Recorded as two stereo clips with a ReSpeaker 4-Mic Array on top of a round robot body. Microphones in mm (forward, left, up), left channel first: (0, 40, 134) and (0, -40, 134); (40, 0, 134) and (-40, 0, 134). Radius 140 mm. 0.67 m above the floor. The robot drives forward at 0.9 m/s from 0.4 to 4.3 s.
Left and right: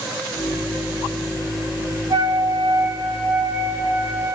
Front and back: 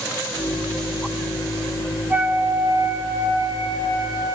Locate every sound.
2.1 s a flute: 115° right, 2.5 m; by 4.4 s 145° right, 3.5 m